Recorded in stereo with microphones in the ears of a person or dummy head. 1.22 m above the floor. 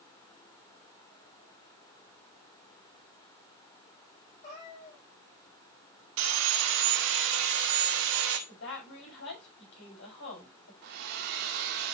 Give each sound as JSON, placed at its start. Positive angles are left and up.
{"t": 4.4, "sound": "a cat meowing", "side_deg": 40, "distance_m": 7.5}
{"t": 6.2, "sound": "sawing", "side_deg": -70, "distance_m": 1.7}
{"t": 8.5, "sound": "a woman speaking", "side_deg": 70, "distance_m": 5.5}
{"t": 10.8, "sound": "a hair dryer", "side_deg": -60, "distance_m": 1.3}